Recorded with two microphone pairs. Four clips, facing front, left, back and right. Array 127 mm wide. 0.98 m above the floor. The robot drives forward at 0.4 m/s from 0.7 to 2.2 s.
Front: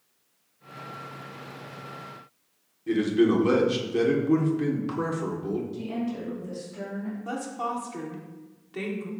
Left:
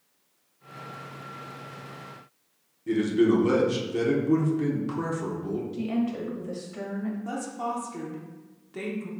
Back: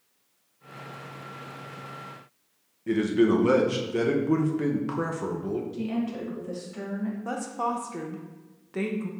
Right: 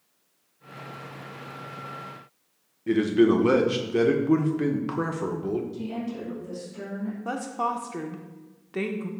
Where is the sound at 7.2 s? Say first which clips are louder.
Right 3 dB, back 1 dB; 120° right, 0.6 m.